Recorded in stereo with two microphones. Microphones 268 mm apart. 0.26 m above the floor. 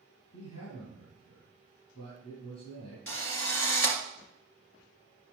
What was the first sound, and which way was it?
A man speaking, 75° left (ahead or behind).